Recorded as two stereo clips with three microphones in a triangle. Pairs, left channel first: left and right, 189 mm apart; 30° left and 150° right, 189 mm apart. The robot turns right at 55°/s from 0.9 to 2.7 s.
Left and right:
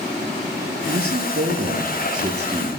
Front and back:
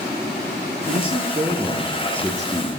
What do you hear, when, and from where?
0.9 s a man speaking: 120° right, 3 m; by 2.7 s 25° right, 3 m